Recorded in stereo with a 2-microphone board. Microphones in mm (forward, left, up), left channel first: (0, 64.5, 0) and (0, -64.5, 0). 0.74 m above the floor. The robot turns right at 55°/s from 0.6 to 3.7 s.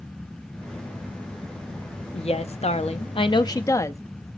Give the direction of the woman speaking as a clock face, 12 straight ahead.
10 o'clock.